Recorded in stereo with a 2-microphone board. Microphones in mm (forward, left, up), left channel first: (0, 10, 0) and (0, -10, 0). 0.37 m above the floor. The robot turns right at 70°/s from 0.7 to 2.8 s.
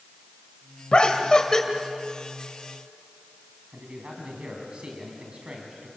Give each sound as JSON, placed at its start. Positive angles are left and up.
{"t": 0.9, "sound": "laughter", "azimuth_deg": 95, "distance_m": 2.0}
{"t": 3.7, "sound": "a man speaking", "side_deg": -55, "distance_m": 3.5}